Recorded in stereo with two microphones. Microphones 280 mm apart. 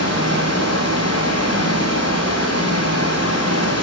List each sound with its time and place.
0.0 s running water: 65° left (ahead or behind), 3 m